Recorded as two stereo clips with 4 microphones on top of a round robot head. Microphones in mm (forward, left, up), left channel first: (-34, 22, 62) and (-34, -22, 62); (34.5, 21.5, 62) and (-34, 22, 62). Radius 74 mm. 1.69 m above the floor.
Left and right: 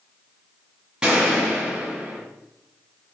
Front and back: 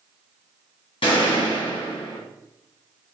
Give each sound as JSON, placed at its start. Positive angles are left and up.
{"t": 1.0, "sound": "a gunshot", "azimuth_deg": -10, "distance_m": 2.5}